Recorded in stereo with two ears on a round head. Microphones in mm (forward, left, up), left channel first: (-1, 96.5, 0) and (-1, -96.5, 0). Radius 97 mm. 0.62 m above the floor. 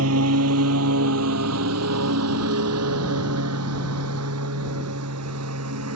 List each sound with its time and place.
0.0 s a lawn mower: 85° right; by 6.0 s 90° right